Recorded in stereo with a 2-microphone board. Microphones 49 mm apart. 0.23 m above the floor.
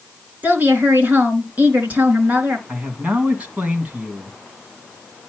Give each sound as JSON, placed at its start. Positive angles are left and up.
{"t": 0.4, "sound": "a woman speaking", "side_deg": -35, "distance_m": 3.5}
{"t": 2.7, "sound": "a man speaking", "side_deg": -25, "distance_m": 2.0}